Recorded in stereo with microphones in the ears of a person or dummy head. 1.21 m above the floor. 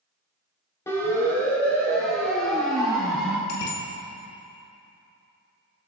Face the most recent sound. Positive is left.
turn(degrees=75)  # may be behind; listen again after turning